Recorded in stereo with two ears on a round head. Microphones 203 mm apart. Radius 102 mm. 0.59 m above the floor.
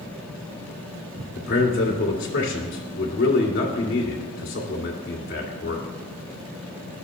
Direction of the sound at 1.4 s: 50° left (ahead or behind).